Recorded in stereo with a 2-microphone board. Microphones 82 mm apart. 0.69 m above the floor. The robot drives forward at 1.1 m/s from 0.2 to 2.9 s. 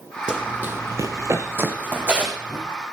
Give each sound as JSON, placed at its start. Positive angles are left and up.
{"t": 0.3, "sound": "running footsteps", "side_deg": -15, "distance_m": 1.6}